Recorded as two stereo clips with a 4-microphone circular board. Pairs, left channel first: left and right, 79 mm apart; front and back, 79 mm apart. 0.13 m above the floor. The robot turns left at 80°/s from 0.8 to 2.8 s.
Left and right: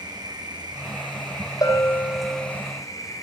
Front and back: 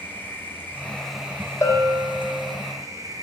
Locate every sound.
0.0 s an insect: 65° right, 2.5 m; by 3.2 s 135° left, 2.5 m
1.6 s a bell: 50° left, 3.5 m; by 2.5 s 20° right, 3.5 m